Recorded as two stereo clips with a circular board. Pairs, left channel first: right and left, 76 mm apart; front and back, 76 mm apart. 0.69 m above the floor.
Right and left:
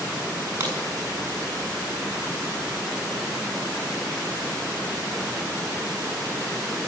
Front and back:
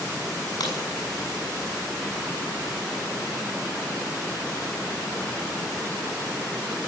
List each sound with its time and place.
0.6 s a crack: 25° left, 7 m